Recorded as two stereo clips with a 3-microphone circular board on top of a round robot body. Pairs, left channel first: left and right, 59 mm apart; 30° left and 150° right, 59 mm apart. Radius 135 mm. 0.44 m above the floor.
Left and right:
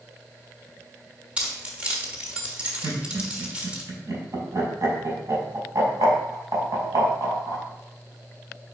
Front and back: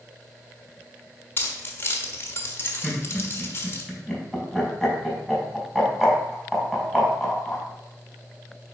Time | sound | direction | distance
1.4 | keys jangling | 20° right | 1.6 m
2.8 | laughter | 60° right | 3.5 m